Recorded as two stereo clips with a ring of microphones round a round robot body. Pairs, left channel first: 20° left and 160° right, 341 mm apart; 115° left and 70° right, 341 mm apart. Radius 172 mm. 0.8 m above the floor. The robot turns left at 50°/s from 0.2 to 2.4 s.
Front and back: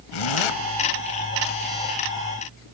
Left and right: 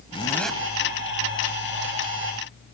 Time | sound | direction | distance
0.1 | a zipper | 35° left | 1.3 m